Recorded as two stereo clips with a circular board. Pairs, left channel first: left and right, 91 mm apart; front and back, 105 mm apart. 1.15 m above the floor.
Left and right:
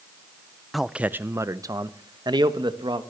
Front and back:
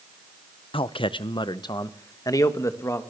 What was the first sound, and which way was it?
A man speaking, straight ahead.